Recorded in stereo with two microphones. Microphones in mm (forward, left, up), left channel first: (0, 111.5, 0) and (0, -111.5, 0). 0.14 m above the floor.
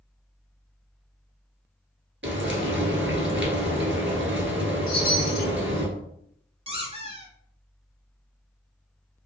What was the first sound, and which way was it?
Frying, 60° right (ahead or behind).